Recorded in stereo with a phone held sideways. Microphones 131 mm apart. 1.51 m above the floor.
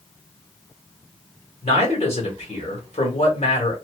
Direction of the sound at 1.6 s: 55° left (ahead or behind).